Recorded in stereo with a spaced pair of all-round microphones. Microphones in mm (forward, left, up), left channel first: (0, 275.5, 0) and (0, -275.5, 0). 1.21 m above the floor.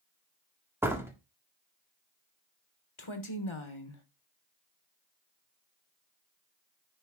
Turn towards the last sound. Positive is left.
turn(degrees=60)  # may be behind; listen again after turning